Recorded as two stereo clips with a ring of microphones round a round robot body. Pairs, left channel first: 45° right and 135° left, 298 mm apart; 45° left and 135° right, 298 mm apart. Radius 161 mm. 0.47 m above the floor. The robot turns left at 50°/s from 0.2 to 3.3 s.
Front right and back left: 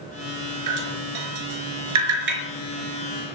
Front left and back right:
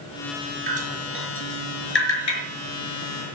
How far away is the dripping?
About 5 m.